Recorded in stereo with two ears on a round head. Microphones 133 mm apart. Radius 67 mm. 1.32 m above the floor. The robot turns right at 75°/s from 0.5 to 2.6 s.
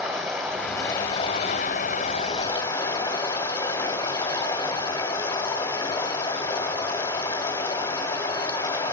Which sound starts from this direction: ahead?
Running water, at 0.0 s.